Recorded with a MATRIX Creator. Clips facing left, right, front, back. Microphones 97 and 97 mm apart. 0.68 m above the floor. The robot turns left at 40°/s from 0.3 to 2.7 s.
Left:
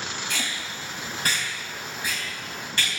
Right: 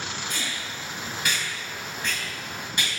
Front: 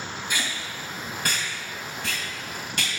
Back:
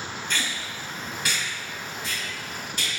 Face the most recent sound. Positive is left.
turn(degrees=-15)